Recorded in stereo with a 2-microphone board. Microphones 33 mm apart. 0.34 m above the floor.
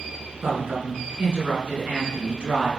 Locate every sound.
0.4 s a woman speaking: 50° right (ahead or behind), 3.5 m; by 2.7 s 35° right (ahead or behind), 3.5 m